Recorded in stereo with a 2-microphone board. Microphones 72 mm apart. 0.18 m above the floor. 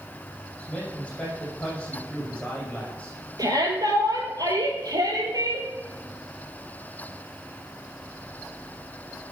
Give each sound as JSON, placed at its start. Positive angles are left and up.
{"t": 0.6, "sound": "a man speaking", "side_deg": 15, "distance_m": 7.0}
{"t": 3.4, "sound": "a shout", "side_deg": -60, "distance_m": 4.0}